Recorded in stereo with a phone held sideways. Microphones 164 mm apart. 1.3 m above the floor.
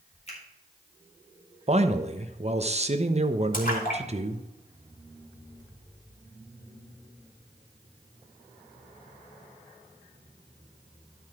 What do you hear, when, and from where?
0.3 s a finger snap: 40° left (ahead or behind), 4 m
1.7 s a man speaking: 40° right (ahead or behind), 0.9 m
3.5 s a splash: 55° left (ahead or behind), 3 m